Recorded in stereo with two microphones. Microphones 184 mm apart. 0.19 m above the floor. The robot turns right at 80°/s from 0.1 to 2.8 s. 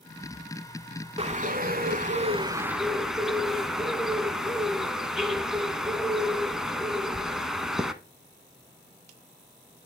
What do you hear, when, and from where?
1.2 s a bird: 135° right, 0.7 m; by 7.9 s 5° right, 0.7 m